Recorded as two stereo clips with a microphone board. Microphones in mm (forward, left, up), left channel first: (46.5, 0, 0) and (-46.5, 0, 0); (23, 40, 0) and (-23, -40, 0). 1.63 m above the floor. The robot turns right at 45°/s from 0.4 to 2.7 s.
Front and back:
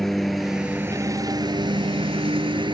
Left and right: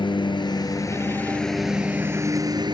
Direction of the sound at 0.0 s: 90° left.